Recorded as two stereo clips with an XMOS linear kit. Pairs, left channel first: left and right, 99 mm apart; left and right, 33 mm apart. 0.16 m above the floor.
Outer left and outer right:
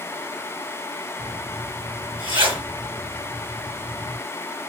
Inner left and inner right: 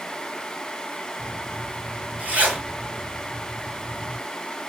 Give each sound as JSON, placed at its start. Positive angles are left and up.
{"t": 1.2, "sound": "a zipper", "side_deg": -60, "distance_m": 2.5}